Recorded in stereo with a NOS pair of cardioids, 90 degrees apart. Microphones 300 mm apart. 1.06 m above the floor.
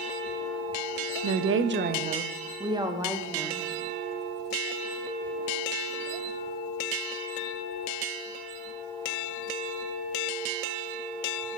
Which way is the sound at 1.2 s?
60° right.